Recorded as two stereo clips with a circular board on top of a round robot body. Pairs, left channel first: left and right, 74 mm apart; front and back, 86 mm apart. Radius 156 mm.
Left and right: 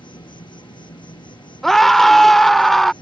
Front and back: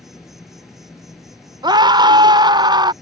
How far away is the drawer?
I don't hear a drawer.